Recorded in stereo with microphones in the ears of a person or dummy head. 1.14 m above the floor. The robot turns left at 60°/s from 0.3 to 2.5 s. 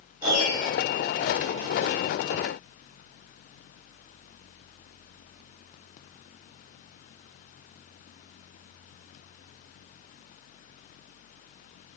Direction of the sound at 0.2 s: 20° right (ahead or behind).